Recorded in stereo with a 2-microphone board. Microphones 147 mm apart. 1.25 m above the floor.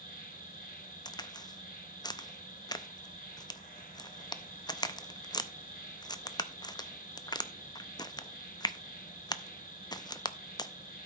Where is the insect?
65° left (ahead or behind), 3.5 m.